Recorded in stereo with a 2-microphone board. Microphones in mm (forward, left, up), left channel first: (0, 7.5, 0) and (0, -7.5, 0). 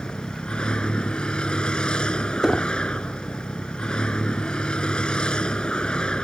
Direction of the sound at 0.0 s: 70° left (ahead or behind).